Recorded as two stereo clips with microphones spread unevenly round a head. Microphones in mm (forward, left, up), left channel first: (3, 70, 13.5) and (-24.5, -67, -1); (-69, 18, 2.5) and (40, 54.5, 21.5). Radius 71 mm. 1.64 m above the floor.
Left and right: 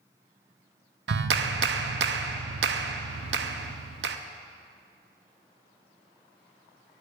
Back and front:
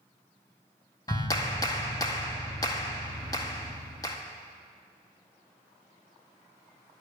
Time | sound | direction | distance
1.1 | a clap | 90° right | 0.7 m